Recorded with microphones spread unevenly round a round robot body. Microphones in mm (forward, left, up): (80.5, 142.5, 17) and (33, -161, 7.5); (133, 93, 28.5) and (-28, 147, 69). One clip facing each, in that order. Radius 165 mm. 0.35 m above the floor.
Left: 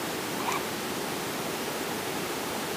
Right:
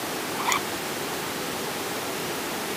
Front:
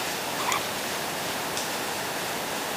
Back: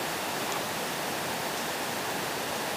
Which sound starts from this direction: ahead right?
A zipper, at 0.4 s.